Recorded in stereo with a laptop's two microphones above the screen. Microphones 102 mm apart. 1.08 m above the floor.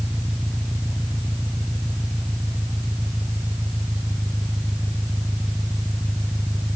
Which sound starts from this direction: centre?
An engine running, at 0.0 s.